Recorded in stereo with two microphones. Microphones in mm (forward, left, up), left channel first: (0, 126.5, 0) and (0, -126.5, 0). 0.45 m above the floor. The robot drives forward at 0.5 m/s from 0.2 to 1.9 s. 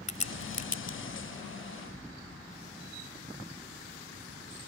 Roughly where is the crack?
Left.